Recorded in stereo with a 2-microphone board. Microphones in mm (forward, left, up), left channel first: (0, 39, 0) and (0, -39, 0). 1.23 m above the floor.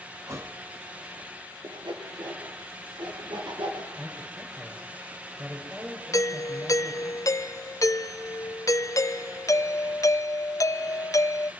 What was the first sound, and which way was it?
A thud, 40° right (ahead or behind).